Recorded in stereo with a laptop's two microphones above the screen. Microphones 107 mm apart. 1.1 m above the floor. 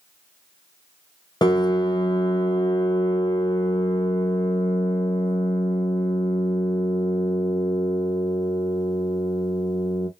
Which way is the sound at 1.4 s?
40° left (ahead or behind).